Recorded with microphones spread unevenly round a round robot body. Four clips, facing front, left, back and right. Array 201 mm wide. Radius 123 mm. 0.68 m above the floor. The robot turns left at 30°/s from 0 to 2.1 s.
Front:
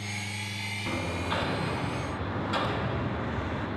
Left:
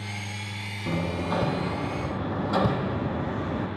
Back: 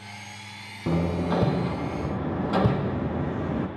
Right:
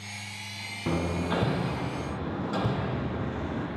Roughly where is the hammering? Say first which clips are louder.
Even, back 7 dB; behind.